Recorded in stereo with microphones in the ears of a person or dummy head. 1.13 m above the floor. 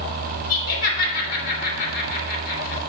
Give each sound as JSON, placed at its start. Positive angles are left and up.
{"t": 0.5, "sound": "laughter", "side_deg": 50, "distance_m": 2.5}